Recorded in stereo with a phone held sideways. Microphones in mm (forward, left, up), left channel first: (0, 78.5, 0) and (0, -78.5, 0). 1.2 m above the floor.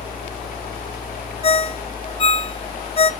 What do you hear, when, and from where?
0.0 s a fan: 65° left (ahead or behind), 1.3 m
1.4 s a ringtone: 40° left (ahead or behind), 0.6 m